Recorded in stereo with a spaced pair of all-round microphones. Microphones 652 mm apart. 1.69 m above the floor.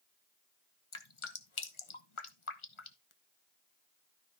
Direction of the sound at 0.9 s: 45° left (ahead or behind).